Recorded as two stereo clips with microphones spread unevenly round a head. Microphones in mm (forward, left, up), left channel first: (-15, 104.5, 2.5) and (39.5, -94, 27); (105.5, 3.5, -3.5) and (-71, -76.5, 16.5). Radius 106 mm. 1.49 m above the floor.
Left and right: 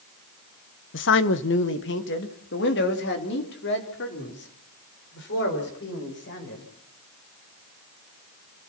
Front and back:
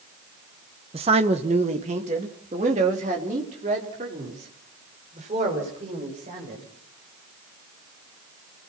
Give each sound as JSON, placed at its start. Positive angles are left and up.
{"t": 0.9, "sound": "a man speaking", "azimuth_deg": 140, "distance_m": 1.1}